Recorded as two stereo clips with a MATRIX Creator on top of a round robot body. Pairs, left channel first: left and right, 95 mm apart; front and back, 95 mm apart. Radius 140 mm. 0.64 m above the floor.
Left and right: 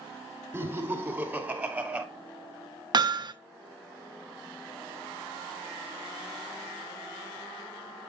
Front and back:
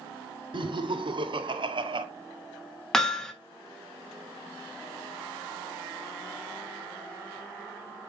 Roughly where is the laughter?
Behind right.